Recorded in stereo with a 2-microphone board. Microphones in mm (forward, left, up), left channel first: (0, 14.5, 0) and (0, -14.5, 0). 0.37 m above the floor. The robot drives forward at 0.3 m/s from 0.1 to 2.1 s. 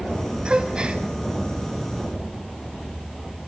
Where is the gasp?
35° right (ahead or behind), 2.5 m; by 1.0 s 30° right (ahead or behind), 2.5 m.